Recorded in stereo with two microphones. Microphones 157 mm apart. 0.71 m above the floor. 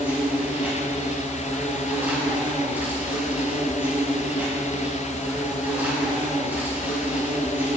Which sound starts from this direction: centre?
An insect, at 0.0 s.